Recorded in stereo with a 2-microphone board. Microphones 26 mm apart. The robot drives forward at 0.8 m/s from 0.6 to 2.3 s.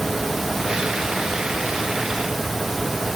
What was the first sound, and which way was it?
Only background noise.